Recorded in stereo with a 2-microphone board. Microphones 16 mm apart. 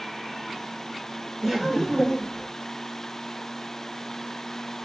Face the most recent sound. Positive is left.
turn(degrees=30)  # may be behind; listen again after turning